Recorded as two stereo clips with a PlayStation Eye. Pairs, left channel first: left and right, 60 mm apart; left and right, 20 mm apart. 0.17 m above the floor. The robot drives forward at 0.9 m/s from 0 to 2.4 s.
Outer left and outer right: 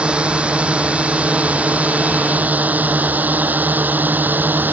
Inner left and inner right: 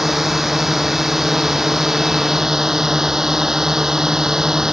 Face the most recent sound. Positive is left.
turn(degrees=-30)  # may be behind; listen again after turning